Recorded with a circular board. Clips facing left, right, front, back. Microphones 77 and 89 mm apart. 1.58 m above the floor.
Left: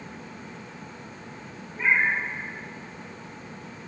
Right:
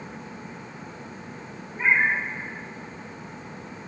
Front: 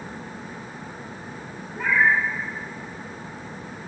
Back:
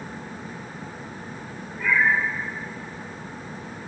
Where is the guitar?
I don't hear a guitar.